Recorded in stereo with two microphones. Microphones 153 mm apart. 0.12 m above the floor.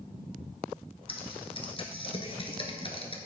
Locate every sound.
1.1 s typing on a keyboard: 40° left (ahead or behind), 1.3 m